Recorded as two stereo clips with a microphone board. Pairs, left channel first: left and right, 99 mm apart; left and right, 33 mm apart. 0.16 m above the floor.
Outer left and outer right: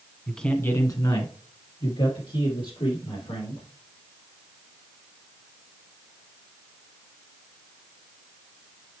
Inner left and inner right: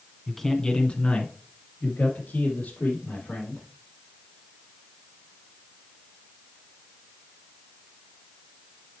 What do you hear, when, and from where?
0.3 s a man speaking: centre (ahead or behind), 1.2 m; by 3.6 s 75° left (ahead or behind), 5 m